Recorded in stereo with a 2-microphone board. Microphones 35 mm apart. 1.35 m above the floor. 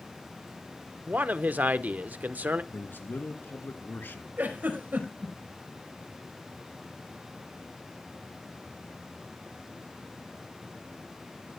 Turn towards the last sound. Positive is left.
turn(degrees=-55)  # may be behind; listen again after turning